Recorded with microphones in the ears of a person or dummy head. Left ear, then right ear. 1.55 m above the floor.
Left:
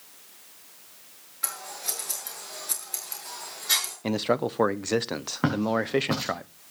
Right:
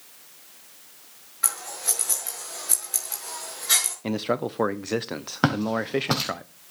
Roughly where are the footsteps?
Right.